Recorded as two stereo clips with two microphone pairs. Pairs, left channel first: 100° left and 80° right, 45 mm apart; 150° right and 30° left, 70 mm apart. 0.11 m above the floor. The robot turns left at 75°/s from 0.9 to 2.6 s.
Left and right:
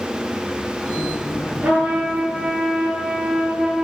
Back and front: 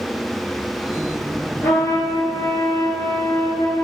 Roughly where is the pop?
No pop in this recording.